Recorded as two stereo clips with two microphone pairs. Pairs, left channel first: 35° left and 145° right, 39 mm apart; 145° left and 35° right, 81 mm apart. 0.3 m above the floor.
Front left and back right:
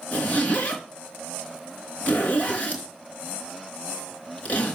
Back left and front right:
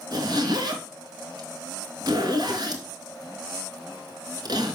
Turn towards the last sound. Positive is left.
turn(degrees=-10)